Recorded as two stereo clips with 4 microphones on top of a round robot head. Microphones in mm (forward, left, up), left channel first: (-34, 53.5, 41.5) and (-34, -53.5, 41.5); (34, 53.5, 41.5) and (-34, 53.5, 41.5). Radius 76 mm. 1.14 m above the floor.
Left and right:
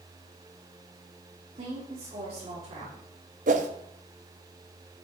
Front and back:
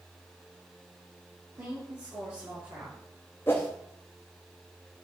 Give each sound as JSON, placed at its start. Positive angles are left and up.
{"t": 1.6, "sound": "a woman speaking", "azimuth_deg": -120, "distance_m": 3.5}
{"t": 3.5, "sound": "a whoosh", "azimuth_deg": -75, "distance_m": 0.8}